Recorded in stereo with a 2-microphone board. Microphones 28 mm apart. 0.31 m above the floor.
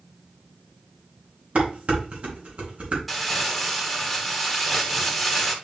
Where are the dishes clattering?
45° right (ahead or behind), 2.5 m.